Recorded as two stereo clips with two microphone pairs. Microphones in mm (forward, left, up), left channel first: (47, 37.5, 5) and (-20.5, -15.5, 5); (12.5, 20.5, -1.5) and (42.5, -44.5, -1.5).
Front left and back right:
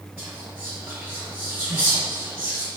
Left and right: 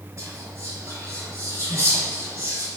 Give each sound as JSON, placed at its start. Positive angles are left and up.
{"t": 0.2, "sound": "whispering", "azimuth_deg": -90, "distance_m": 1.9}